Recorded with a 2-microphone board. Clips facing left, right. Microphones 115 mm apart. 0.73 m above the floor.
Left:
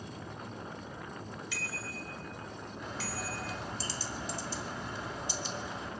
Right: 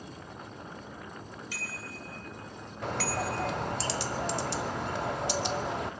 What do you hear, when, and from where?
1.5 s a bicycle bell: 40° right (ahead or behind), 2.5 m; by 3.5 s 45° right (ahead or behind), 1.8 m
2.8 s a bird: 70° right (ahead or behind), 0.8 m